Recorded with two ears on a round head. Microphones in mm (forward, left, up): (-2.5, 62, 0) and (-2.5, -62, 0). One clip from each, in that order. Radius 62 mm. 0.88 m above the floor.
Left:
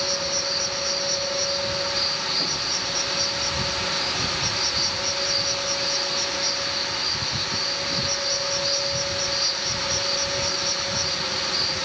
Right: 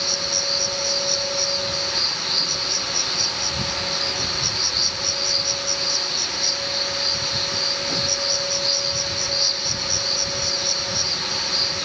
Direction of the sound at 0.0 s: 40° right (ahead or behind).